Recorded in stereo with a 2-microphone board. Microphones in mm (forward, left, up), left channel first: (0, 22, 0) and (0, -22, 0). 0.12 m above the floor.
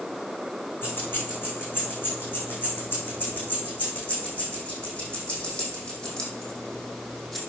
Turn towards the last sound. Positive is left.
turn(degrees=5)  # may be behind; listen again after turning